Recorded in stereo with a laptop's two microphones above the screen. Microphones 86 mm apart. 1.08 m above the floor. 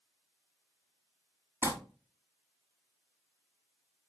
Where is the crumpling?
30° right (ahead or behind), 2.5 m.